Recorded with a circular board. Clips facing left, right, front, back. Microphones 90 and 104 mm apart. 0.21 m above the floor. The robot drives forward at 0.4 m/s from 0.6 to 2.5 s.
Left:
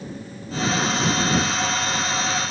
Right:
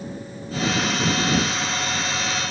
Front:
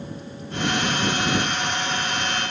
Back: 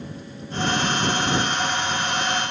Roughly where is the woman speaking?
No woman speaking in this recording.